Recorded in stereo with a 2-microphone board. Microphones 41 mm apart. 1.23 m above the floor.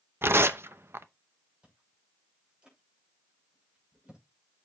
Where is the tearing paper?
70° right (ahead or behind), 0.7 m.